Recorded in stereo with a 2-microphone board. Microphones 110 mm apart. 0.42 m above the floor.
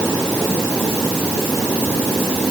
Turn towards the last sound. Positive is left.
No sound to turn to.